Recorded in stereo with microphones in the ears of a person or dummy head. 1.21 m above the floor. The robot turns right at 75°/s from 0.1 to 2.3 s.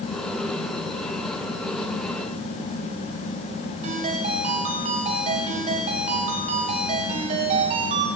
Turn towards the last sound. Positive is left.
turn(degrees=-45)  # may be behind; listen again after turning